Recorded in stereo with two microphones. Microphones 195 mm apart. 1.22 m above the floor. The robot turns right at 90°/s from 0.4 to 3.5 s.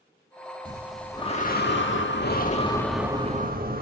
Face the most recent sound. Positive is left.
turn(degrees=-130)